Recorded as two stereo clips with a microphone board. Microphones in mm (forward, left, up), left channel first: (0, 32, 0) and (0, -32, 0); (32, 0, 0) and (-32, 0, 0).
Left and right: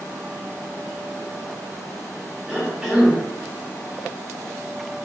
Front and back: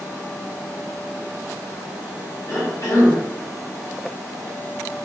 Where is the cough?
15° right, 2.0 m.